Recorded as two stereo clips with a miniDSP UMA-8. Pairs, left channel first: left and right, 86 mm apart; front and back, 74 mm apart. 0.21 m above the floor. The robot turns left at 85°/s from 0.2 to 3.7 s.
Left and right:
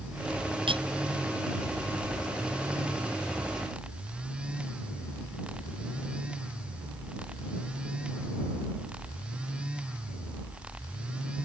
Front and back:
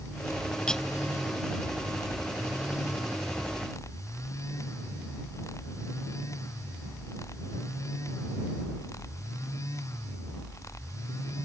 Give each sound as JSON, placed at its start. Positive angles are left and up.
{"t": 0.7, "sound": "cutlery clinking", "azimuth_deg": -80}